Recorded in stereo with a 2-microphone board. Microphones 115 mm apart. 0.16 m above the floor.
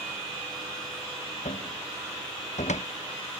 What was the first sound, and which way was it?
A cupboard door, 85° left.